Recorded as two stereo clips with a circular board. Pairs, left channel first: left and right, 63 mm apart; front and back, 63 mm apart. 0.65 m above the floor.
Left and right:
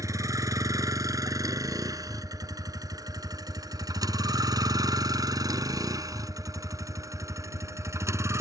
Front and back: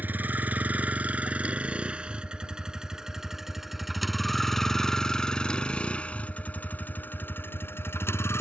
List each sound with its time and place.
0.0 s a vehicle: 115° right; by 8.4 s 45° right